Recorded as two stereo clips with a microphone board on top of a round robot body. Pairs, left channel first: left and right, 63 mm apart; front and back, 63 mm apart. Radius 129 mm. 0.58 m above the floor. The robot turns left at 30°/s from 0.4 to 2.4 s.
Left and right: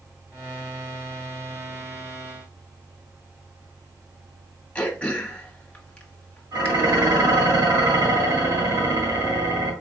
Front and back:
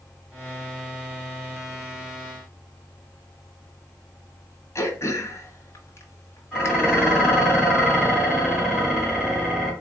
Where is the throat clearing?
20° left, 1.4 m.